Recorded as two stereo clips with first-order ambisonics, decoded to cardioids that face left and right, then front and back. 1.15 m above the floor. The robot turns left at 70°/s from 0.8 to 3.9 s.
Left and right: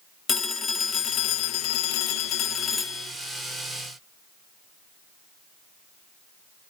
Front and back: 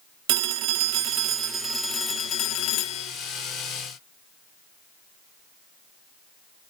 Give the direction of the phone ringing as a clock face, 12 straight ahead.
7 o'clock.